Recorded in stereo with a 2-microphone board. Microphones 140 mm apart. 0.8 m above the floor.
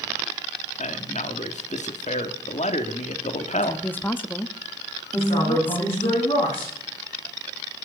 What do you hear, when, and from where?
0.8 s a man speaking: 55° left (ahead or behind), 1.4 m
3.6 s a woman speaking: 15° left (ahead or behind), 1.0 m
5.1 s a man speaking: 45° left (ahead or behind), 10 m